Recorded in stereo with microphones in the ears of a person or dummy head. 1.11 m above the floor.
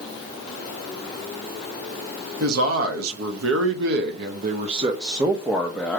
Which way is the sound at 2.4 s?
85° right.